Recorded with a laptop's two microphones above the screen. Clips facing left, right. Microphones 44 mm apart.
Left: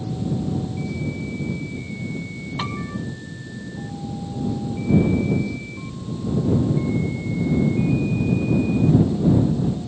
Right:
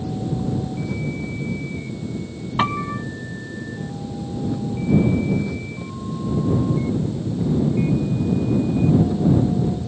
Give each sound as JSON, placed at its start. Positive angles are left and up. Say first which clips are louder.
{"t": 0.0, "sound": "an engine running", "louder": "right 1 dB", "side_deg": -45}
{"t": 2.6, "sound": "a piano", "louder": "right 8 dB", "side_deg": -35}